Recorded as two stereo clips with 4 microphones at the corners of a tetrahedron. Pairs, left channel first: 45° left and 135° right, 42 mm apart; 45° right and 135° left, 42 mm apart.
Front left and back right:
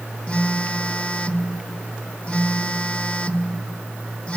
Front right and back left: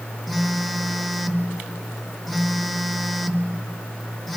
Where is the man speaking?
I don't hear a man speaking.